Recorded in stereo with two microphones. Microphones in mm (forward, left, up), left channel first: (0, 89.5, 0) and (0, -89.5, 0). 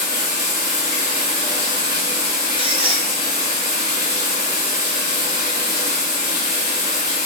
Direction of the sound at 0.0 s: 60° right (ahead or behind).